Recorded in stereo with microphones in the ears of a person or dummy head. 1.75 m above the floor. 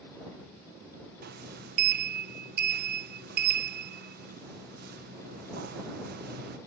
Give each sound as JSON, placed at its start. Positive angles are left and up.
{"t": 1.2, "sound": "a sliding door", "side_deg": -60}